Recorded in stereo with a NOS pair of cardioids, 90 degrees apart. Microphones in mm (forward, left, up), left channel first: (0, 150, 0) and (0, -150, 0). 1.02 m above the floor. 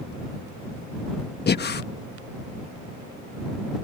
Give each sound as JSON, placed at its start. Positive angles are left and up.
{"t": 1.5, "sound": "breathing", "azimuth_deg": 35}